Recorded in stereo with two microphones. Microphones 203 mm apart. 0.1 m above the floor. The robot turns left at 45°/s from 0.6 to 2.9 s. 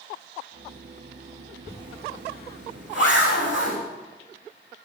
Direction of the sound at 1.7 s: 15° left (ahead or behind).